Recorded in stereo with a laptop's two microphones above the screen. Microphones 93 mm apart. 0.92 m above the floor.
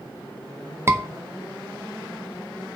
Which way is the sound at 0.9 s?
25° right (ahead or behind).